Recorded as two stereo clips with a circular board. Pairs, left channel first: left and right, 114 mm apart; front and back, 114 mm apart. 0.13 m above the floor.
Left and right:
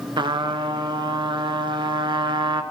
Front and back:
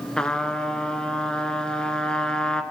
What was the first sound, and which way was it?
A trumpet, 80° right.